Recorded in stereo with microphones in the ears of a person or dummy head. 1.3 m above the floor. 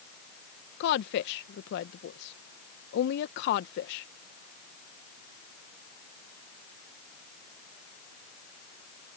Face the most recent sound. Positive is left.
turn(degrees=60)  # may be behind; listen again after turning